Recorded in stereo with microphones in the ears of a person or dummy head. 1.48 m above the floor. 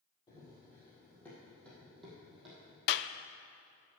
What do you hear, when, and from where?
0.3 s running footsteps: 15° left (ahead or behind), 2 m; by 2.8 s 5° right (ahead or behind), 3 m
2.9 s a clap: 60° left (ahead or behind), 0.5 m